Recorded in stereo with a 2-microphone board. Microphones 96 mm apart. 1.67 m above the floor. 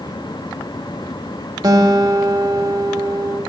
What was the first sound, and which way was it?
A guitar, 45° right (ahead or behind).